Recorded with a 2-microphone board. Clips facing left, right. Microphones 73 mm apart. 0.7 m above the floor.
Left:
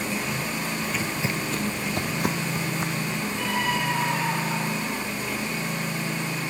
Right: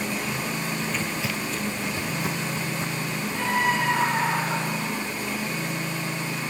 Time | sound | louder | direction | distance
0.8 | footsteps | even | 10° right (ahead or behind) | 0.8 m
3.3 | a scream | right 4 dB | 30° right (ahead or behind) | 4 m